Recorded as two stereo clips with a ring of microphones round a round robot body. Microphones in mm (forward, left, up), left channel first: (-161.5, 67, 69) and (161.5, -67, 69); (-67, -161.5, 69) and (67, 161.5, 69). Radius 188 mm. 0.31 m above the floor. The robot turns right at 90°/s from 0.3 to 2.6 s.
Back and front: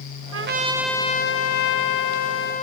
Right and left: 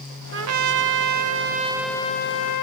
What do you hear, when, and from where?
0.3 s a trumpet: 20° left, 1.0 m; by 2.6 s 135° right, 1.0 m